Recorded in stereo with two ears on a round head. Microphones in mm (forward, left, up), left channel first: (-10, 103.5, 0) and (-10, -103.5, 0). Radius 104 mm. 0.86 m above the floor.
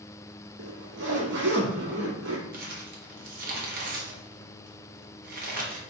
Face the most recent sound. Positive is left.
turn(degrees=-40)  # may be behind; listen again after turning